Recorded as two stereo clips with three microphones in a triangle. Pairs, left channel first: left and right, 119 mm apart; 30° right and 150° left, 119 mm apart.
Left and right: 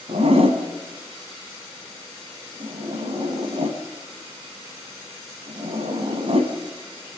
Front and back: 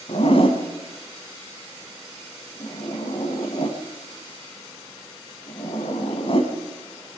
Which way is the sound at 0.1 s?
65° right.